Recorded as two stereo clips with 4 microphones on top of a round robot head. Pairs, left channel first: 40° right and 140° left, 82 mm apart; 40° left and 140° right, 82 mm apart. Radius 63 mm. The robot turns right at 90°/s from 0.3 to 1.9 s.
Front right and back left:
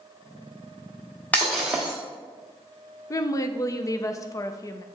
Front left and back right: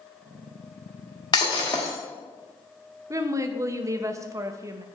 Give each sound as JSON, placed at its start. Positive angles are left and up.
{"t": 1.3, "sound": "breaking glass", "azimuth_deg": 25, "distance_m": 0.8}
{"t": 3.1, "sound": "a woman speaking", "azimuth_deg": -90, "distance_m": 0.6}